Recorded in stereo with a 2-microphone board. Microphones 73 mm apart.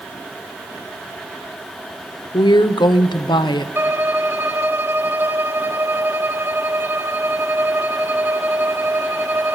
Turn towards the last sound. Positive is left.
turn(degrees=-30)  # may be behind; listen again after turning